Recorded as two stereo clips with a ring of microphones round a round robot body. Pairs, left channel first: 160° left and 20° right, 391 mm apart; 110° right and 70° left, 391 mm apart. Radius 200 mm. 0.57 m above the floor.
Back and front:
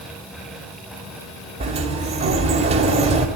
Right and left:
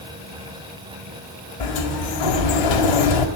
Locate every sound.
1.6 s a sliding door: 95° right, 2.5 m